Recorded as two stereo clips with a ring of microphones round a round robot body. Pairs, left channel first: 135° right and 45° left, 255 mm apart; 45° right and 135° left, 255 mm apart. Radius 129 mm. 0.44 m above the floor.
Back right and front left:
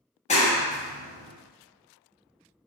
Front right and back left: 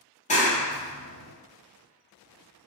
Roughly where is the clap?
Right.